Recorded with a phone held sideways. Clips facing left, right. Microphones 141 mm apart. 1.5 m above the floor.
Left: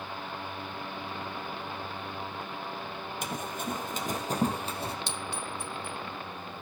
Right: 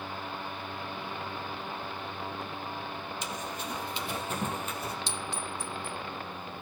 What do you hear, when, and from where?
3.2 s running footsteps: 55° left (ahead or behind), 2.5 m; by 5.0 s 25° left (ahead or behind), 3 m
5.1 s a clink: 60° left (ahead or behind), 2 m